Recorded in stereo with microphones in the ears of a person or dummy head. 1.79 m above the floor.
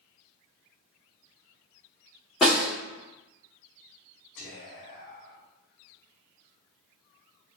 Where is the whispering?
50° left (ahead or behind), 1.0 m.